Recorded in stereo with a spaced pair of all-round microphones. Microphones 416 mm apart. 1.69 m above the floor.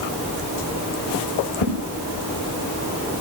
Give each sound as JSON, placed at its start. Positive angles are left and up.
{"t": 1.6, "sound": "a whoosh", "side_deg": 80, "distance_m": 6.5}